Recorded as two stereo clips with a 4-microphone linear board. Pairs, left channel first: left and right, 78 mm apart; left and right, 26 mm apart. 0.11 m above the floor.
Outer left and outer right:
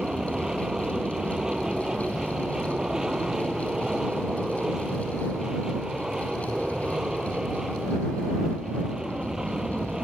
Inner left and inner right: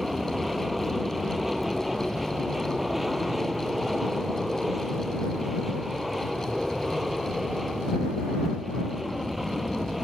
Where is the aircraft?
10° right (ahead or behind).